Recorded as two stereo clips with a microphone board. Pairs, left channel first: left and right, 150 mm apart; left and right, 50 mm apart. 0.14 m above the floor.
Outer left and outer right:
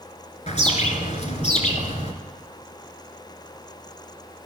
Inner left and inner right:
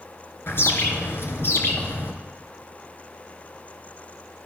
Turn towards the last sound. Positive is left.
turn(degrees=50)  # may be behind; listen again after turning